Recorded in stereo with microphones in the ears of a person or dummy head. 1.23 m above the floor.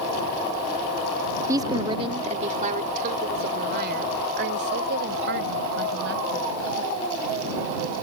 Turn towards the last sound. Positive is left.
turn(degrees=-70)  # may be behind; listen again after turning